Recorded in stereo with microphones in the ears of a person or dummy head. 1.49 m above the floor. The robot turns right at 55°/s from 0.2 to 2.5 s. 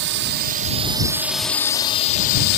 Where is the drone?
65° right; by 2.6 s 60° left.